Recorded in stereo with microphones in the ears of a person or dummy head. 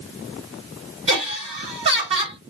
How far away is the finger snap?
No finger snap in this recording.